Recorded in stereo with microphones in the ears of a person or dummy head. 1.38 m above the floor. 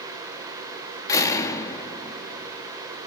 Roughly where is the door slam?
Centre.